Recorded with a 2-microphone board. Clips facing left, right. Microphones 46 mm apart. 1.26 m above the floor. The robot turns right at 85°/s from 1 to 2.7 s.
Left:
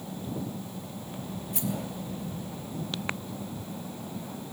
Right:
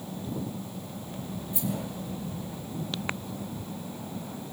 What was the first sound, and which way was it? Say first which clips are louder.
A rattle: even; 65° left (ahead or behind).